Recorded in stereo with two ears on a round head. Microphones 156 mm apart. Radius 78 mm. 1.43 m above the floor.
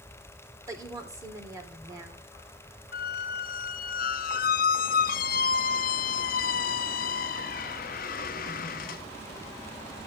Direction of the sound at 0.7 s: 20° right (ahead or behind).